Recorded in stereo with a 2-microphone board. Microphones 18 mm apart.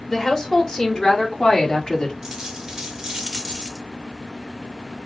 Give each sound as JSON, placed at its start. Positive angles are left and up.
{"t": 0.1, "sound": "a woman speaking", "side_deg": 35, "distance_m": 3.0}
{"t": 2.2, "sound": "a dropped coin", "side_deg": -30, "distance_m": 2.0}